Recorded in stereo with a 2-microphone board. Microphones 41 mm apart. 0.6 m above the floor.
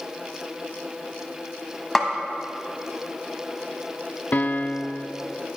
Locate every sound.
1.9 s a snare drum: 5° left (ahead or behind), 1.4 m
4.3 s a piano: 45° left (ahead or behind), 0.6 m